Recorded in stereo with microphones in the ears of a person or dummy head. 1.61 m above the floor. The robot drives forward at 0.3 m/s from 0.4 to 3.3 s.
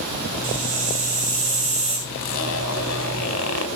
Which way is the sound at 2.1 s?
70° left (ahead or behind).